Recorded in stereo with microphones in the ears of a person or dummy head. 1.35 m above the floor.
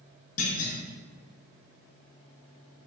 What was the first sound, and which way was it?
A clunk, 40° left (ahead or behind).